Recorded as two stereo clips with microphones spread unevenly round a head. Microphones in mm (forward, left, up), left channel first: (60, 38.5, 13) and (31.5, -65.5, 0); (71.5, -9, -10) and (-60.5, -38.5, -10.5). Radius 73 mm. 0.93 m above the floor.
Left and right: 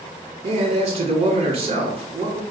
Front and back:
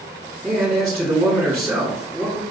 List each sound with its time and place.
0.4 s a man speaking: 80° right, 1.3 m